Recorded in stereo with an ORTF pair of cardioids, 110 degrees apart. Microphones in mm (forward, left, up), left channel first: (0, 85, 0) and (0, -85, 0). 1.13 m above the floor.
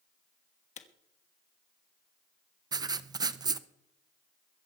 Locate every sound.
0.8 s a camera shutter: 45° left, 1.3 m
2.7 s writing: 25° right, 0.7 m